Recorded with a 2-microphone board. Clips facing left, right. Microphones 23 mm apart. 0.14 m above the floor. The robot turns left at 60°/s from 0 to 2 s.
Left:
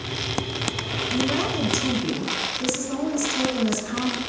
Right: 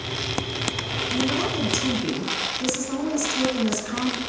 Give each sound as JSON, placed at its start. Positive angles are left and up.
{"t": 1.1, "sound": "a woman speaking", "side_deg": 5, "distance_m": 1.1}